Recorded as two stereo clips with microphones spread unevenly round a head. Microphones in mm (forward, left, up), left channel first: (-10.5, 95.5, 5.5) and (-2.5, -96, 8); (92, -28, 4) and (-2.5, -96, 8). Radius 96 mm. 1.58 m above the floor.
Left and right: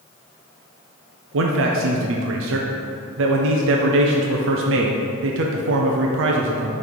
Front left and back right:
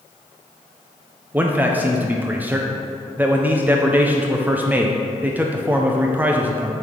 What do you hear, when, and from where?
1.3 s a man speaking: 65° right, 0.5 m